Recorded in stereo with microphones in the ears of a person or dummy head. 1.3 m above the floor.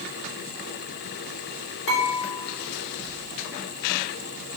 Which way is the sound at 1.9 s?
70° left (ahead or behind).